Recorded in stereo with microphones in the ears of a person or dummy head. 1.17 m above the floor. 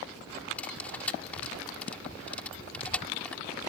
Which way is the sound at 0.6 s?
10° left (ahead or behind).